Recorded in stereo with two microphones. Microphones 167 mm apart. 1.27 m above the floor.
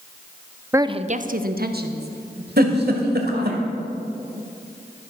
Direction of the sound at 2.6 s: 70° right (ahead or behind).